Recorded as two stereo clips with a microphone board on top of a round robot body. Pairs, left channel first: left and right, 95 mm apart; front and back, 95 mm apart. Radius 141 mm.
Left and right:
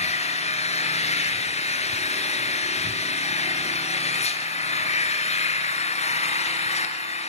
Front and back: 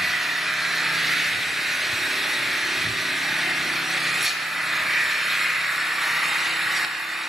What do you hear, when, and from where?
0.0 s an engine running: 95° left, 2.5 m